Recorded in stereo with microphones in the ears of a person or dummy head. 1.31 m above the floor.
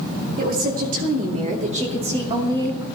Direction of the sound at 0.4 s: 55° right (ahead or behind).